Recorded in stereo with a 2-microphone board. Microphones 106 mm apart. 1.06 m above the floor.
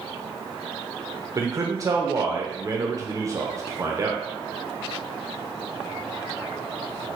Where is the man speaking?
30° right (ahead or behind), 0.7 m.